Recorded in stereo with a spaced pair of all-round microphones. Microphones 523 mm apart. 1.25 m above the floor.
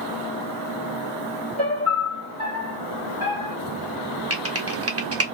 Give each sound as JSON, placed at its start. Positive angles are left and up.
{"t": 1.6, "sound": "a piano", "side_deg": -60, "distance_m": 1.5}
{"t": 4.3, "sound": "typing on a keyboard", "side_deg": -30, "distance_m": 0.7}